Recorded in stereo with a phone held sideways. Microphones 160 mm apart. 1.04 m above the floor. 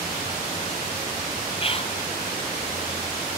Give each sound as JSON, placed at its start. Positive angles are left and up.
{"t": 1.6, "sound": "whispering", "side_deg": 35, "distance_m": 0.8}